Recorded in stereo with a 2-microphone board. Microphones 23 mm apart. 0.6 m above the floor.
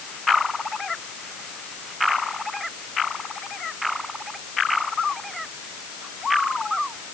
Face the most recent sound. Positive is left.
No sound to turn to.